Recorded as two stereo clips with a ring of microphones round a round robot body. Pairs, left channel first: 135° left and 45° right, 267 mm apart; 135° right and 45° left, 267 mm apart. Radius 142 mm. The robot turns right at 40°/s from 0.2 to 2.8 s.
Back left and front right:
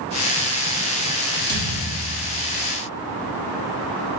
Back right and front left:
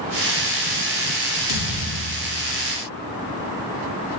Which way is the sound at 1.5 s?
170° left.